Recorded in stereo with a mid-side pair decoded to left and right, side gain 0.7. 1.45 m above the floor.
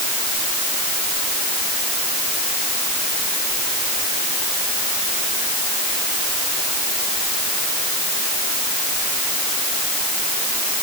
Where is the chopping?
No chopping in this recording.